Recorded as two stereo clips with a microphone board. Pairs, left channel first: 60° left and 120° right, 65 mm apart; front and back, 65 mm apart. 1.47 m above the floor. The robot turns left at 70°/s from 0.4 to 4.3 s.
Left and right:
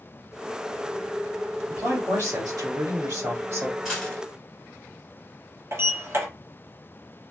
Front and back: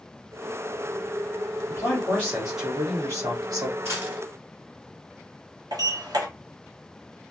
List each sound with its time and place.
1.7 s a man speaking: 40° right, 1.6 m; by 3.8 s 175° left, 1.6 m
3.9 s a dropped coin: 155° left, 2.0 m; by 4.2 s 130° left, 2.0 m
5.7 s a sliding door: 170° right, 0.9 m